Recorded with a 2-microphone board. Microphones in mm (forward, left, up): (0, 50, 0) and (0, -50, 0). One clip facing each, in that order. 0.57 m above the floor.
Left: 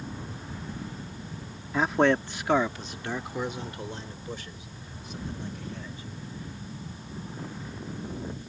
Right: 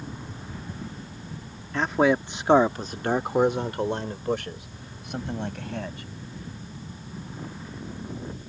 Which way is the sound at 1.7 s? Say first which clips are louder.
Right 1 dB; 10° left (ahead or behind).